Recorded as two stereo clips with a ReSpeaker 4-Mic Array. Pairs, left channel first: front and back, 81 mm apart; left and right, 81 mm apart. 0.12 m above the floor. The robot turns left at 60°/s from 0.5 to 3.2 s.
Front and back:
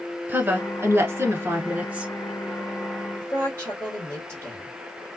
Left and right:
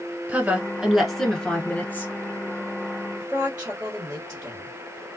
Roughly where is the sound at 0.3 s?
Behind right.